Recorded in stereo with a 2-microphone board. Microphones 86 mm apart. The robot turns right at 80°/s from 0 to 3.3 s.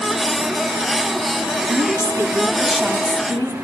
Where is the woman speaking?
85° right, 2.5 m; by 3.5 s 45° left, 2.5 m.